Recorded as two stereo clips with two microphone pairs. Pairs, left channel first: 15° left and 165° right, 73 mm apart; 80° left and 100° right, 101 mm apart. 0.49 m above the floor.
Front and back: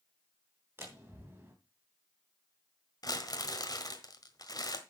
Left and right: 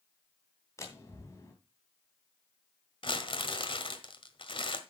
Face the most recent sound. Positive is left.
turn(degrees=50)